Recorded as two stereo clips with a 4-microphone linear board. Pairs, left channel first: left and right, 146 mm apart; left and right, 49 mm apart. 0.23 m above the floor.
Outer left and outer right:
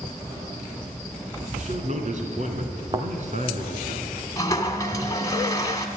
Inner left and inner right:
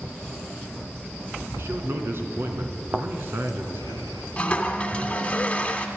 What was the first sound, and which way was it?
A man speaking, 55° right (ahead or behind).